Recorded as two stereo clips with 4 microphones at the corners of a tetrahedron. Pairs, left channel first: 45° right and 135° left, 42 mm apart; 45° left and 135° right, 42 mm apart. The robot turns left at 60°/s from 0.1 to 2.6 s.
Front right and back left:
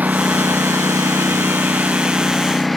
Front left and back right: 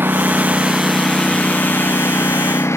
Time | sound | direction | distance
0.0 | a lawn mower | 175° right | ?